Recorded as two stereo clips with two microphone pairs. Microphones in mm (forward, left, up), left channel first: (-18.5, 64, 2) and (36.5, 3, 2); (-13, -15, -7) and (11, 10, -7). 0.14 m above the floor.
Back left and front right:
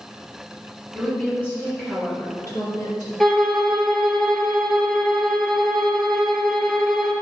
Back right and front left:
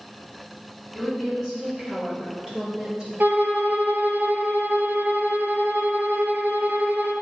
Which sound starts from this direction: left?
A woman speaking, at 0.9 s.